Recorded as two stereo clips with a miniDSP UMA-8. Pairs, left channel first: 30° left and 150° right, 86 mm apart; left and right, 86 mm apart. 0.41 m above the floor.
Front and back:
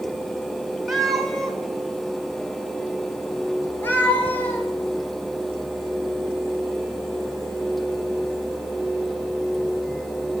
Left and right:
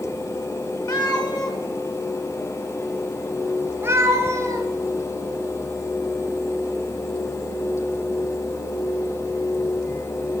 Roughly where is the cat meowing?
Behind left.